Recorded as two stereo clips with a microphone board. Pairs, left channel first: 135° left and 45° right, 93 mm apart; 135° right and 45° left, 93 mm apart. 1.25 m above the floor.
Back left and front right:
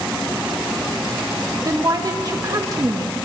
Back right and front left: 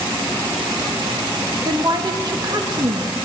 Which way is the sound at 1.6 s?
5° left.